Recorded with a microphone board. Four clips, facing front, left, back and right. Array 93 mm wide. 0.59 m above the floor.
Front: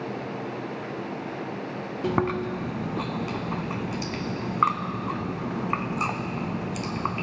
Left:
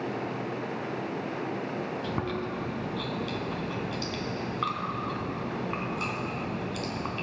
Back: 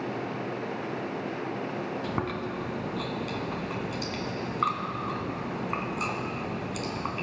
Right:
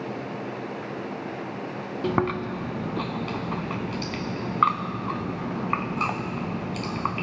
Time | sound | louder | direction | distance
2.0 | chewing | right 6 dB, front 6 dB | 60° right | 0.6 m